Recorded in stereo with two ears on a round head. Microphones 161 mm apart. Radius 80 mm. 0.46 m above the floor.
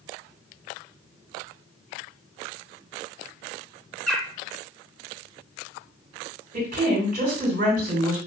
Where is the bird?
5° left (ahead or behind), 0.8 m.